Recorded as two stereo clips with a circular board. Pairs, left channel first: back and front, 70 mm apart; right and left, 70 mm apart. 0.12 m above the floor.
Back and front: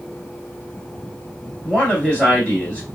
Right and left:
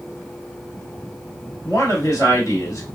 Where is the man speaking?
105° right, 2 m.